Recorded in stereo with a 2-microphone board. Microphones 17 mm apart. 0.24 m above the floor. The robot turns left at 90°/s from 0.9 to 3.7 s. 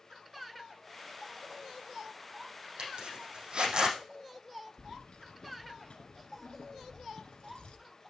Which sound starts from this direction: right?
A zipper, at 2.8 s.